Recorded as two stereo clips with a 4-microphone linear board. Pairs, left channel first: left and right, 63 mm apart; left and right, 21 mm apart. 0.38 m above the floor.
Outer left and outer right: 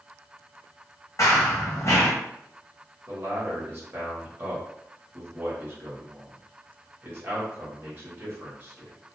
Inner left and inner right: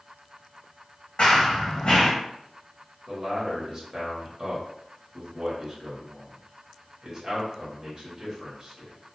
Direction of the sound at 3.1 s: 35° right (ahead or behind).